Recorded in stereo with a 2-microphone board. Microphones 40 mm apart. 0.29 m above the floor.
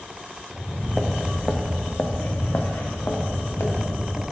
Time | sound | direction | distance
0.5 | footsteps | 10° right (ahead or behind) | 1.8 m